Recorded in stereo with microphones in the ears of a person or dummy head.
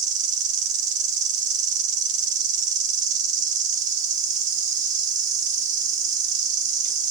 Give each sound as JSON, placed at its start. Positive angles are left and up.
{"t": 0.0, "sound": "an insect", "side_deg": -35, "distance_m": 0.8}